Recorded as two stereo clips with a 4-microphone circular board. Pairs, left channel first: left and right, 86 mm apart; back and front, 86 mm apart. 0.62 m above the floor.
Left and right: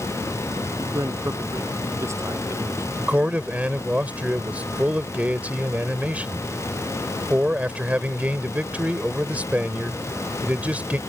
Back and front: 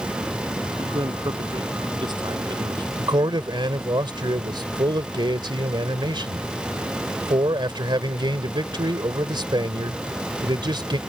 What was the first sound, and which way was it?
A man speaking, 35° right.